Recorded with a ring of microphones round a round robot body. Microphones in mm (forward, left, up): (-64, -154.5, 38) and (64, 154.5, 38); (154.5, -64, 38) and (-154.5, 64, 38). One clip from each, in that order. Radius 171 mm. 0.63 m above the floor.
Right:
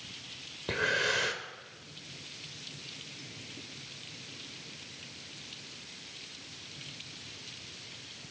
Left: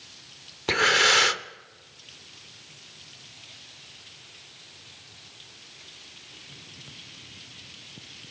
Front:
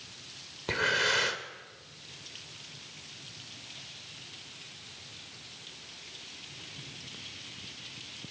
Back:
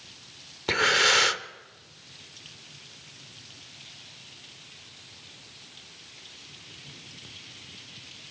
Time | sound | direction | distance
0.7 | breathing | 100° left | 1.0 m